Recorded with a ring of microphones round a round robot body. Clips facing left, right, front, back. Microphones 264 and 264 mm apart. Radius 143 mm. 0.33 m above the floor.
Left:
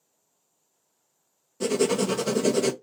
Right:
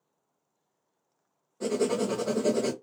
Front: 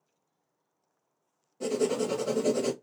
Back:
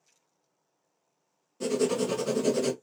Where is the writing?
120° left, 0.6 m.